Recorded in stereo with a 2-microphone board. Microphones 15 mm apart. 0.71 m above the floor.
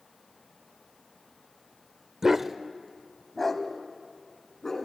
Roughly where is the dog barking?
Right.